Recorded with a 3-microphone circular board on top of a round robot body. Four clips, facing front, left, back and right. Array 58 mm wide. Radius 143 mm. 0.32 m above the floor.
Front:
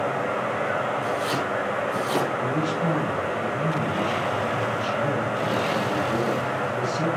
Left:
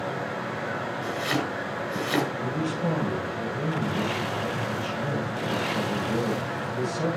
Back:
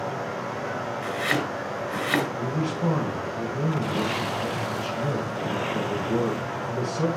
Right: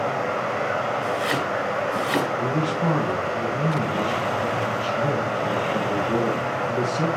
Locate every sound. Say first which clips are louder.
0.0 s running water: right 6 dB, front 5 dB; 55° right, 2 m
1.0 s chopping: right 4 dB, front 1 dB; 160° right, 6 m
2.4 s a man speaking: right 5 dB, front 3 dB; 110° right, 6.5 m